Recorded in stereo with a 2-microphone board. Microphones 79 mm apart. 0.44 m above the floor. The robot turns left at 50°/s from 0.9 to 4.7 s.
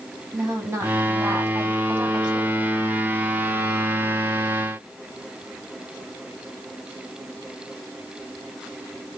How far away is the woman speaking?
About 1.5 m.